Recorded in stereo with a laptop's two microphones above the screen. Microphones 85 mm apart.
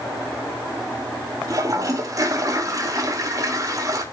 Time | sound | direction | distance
1.5 | a toilet flushing | 40° right (ahead or behind) | 0.9 m